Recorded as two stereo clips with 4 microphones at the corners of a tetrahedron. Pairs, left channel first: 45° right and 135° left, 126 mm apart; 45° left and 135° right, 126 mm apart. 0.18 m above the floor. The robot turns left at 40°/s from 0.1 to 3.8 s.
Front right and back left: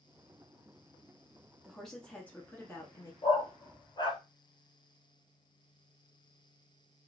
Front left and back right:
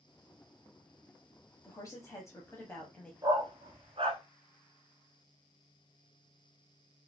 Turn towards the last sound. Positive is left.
turn(degrees=-95)